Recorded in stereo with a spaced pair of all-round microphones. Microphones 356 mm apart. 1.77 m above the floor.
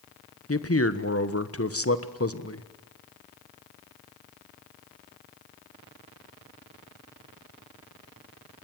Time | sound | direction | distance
0.5 | a man speaking | 40° left (ahead or behind) | 1.3 m